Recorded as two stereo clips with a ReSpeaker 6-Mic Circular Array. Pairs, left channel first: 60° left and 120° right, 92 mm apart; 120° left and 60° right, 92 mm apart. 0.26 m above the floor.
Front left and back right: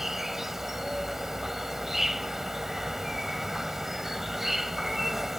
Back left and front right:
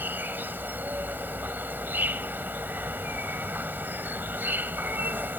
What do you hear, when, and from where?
0.0 s an insect: 40° right